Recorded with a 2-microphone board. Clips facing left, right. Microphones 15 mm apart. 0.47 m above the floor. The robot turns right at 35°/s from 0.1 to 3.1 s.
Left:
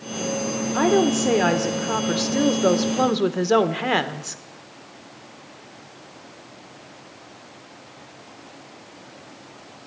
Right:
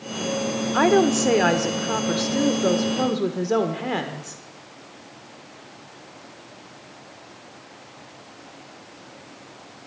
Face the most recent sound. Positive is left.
turn(degrees=50)